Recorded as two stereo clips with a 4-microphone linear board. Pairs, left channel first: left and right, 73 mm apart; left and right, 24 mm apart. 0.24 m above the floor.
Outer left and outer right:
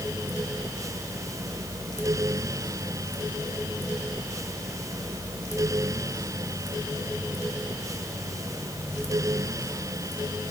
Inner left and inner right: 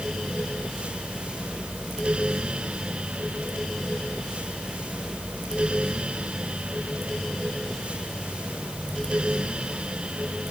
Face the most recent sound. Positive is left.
No sound to turn to.